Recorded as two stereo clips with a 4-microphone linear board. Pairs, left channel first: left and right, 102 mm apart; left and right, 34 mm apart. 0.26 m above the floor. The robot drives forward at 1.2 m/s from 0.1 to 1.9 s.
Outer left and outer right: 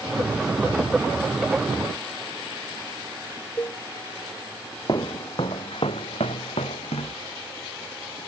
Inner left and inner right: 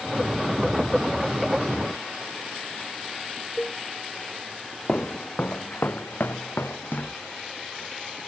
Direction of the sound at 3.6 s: 30° left (ahead or behind).